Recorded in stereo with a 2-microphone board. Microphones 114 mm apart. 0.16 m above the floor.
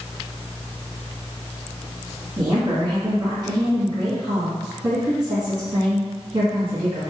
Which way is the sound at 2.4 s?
35° right (ahead or behind).